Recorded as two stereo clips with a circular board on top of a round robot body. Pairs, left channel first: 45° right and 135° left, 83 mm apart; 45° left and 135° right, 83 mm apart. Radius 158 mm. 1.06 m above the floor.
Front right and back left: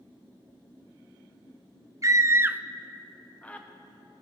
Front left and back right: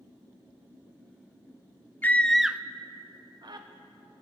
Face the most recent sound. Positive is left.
turn(degrees=-110)